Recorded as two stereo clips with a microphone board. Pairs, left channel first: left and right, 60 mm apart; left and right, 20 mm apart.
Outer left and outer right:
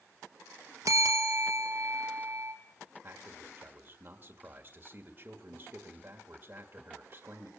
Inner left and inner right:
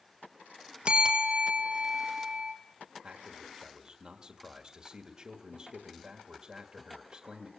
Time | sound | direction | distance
0.8 | a bell | 60° right (ahead or behind) | 1.7 m
3.0 | a man speaking | 35° right (ahead or behind) | 1.6 m